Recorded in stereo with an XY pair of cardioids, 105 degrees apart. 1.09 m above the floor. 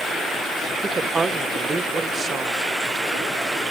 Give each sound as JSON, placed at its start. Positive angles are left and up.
{"t": 0.8, "sound": "a woman speaking", "azimuth_deg": -35, "distance_m": 0.8}